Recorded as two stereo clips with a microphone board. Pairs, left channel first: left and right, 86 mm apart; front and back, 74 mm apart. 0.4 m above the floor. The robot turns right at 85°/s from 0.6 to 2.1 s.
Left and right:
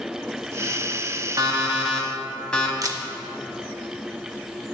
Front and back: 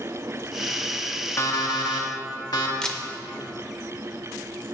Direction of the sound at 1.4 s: 50° right.